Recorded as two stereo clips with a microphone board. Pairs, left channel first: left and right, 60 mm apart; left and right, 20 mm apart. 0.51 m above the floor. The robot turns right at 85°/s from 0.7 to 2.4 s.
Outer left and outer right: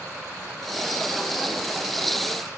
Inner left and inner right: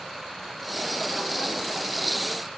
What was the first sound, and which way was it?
Only background noise.